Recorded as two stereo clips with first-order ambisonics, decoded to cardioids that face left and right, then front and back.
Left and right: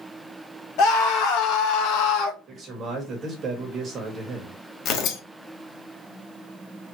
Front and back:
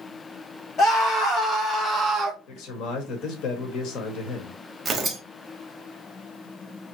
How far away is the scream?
About 2.0 m.